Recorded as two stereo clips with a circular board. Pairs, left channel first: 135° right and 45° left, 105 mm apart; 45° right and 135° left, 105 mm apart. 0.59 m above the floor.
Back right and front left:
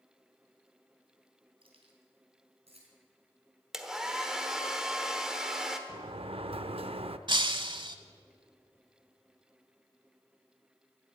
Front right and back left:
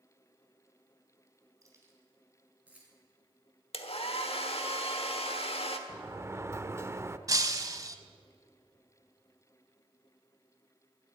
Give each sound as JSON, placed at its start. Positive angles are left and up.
{"t": 1.6, "sound": "keys jangling", "azimuth_deg": 75, "distance_m": 3.0}
{"t": 3.7, "sound": "a hair dryer", "azimuth_deg": -40, "distance_m": 1.2}
{"t": 5.9, "sound": "a sliding door", "azimuth_deg": 70, "distance_m": 0.6}
{"t": 7.3, "sound": "breaking glass", "azimuth_deg": 80, "distance_m": 0.9}